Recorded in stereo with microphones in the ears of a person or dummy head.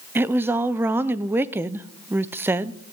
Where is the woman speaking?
10° right (ahead or behind), 0.6 m.